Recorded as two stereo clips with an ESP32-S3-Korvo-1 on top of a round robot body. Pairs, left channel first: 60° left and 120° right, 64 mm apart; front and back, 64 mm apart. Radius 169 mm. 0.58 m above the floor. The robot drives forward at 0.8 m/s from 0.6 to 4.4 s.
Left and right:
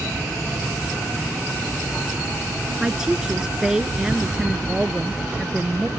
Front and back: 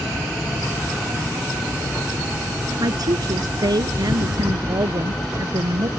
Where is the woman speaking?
160° left.